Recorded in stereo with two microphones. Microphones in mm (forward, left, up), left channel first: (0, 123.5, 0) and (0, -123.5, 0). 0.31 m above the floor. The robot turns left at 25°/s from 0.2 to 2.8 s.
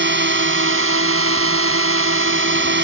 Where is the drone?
60° right; by 2.9 s 125° right.